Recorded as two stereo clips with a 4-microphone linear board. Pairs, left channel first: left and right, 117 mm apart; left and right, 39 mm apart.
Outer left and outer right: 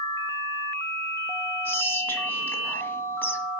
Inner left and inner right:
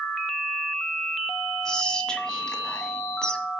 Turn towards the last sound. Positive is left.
turn(degrees=15)  # may be behind; listen again after turning